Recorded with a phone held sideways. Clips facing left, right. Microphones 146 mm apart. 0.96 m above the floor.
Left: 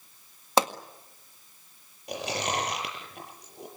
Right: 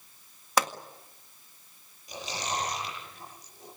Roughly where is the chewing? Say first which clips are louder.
Left 4 dB; left.